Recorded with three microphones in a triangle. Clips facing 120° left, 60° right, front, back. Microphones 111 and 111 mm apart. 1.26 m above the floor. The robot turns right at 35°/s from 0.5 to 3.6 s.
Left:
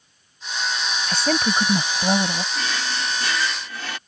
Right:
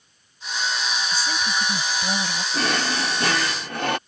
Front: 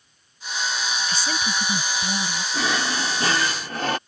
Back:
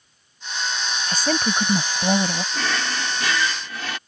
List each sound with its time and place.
1.1 s a woman speaking: 135° left; by 2.4 s 175° right
2.5 s a drawer: 75° right; by 4.0 s 40° right